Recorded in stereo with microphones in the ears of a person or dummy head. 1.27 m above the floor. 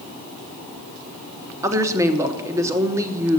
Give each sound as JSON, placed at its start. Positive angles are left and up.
{"t": 1.6, "sound": "a woman speaking", "side_deg": -10, "distance_m": 0.7}